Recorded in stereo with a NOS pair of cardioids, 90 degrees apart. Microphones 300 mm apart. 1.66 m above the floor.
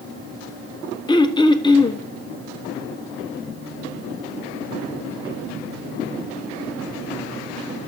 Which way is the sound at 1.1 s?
15° left.